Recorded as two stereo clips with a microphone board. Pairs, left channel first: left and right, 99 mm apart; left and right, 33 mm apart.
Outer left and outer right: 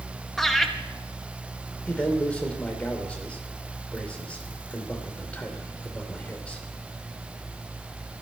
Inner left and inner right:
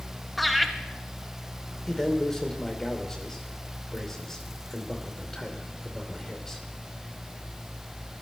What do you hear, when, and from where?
0.4 s laughter: centre (ahead or behind), 1.7 m
1.9 s a man speaking: 15° left (ahead or behind), 3 m